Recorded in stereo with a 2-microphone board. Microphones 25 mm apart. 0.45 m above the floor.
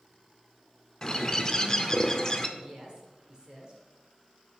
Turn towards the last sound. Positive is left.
turn(degrees=-35)  # may be behind; listen again after turning